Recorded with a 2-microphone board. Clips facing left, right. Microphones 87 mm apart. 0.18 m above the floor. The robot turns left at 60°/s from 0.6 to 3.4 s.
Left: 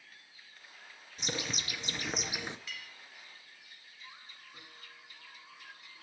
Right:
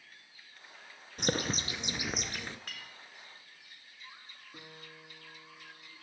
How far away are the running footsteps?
No running footsteps in this recording.